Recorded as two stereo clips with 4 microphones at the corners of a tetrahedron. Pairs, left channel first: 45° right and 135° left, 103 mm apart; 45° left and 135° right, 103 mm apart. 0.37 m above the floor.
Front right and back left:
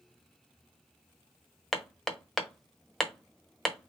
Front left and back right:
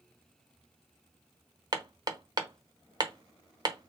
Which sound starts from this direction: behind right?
Hammering, at 1.7 s.